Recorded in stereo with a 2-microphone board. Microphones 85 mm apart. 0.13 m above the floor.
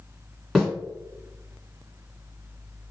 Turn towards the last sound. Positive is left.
turn(degrees=0)  # may be behind; listen again after turning